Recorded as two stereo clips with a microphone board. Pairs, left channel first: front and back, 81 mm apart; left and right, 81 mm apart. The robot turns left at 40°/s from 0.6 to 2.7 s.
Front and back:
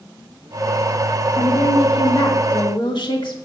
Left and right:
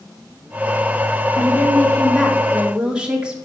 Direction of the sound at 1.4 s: 40° left.